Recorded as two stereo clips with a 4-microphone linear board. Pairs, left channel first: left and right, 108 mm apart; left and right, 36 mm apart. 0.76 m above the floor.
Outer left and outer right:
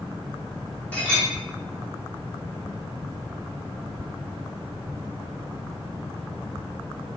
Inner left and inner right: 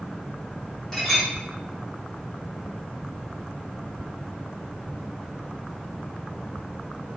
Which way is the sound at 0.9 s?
10° left (ahead or behind).